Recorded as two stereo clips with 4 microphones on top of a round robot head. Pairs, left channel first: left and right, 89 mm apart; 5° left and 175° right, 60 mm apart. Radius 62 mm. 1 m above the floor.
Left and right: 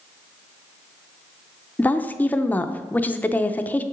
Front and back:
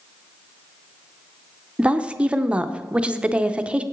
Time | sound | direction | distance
1.8 | a woman speaking | 140° left | 0.6 m